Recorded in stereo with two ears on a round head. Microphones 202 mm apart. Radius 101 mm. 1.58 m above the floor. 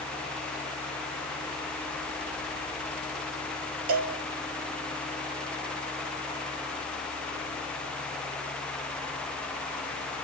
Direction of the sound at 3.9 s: 65° right (ahead or behind).